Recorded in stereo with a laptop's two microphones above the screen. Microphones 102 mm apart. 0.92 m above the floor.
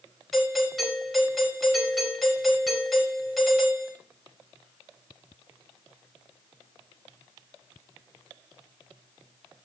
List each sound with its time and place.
0.3 s a doorbell: centre (ahead or behind), 5 m